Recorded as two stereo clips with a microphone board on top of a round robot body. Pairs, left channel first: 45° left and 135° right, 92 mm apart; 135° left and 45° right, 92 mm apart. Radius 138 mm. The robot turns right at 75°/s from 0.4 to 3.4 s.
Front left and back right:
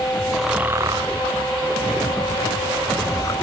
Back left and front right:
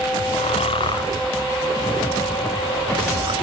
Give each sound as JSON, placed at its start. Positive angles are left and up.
{"t": 0.3, "sound": "snoring", "azimuth_deg": 135}